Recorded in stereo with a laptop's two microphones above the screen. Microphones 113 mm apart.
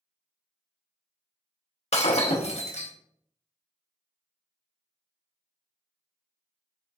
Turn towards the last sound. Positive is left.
turn(degrees=75)  # may be behind; listen again after turning